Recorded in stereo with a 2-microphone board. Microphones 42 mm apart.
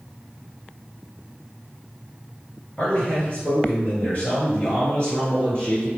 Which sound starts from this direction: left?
A man speaking, at 2.8 s.